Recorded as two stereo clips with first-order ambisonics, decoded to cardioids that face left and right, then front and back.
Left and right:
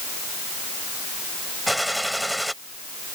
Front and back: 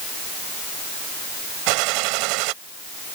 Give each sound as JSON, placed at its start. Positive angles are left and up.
{"t": 1.7, "sound": "a gunshot", "azimuth_deg": 180}